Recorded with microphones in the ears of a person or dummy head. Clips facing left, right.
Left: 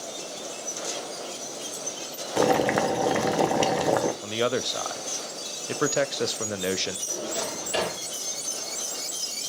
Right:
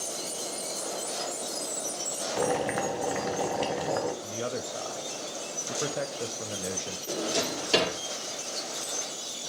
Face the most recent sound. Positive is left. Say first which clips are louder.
# right 4 dB
turn(degrees=-80)